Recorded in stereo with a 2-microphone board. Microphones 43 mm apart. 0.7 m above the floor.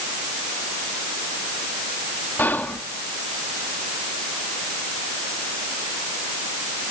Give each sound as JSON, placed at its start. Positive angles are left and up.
{"t": 2.4, "sound": "whispering", "side_deg": 50, "distance_m": 1.3}